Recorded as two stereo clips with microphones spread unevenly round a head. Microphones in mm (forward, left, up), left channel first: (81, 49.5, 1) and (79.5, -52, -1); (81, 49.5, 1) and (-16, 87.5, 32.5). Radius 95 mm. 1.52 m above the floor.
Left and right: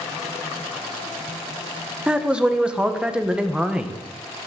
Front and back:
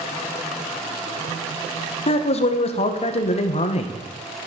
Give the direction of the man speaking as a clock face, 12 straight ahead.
12 o'clock.